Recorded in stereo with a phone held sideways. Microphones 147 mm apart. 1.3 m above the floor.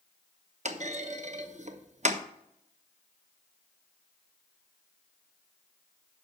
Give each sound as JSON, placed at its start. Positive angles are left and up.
{"t": 0.7, "sound": "a clunk", "side_deg": -50, "distance_m": 0.8}